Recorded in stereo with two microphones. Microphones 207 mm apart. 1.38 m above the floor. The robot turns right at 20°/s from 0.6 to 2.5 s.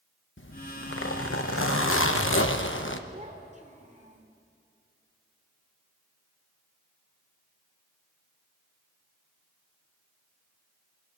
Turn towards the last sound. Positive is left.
turn(degrees=-35)  # may be behind; listen again after turning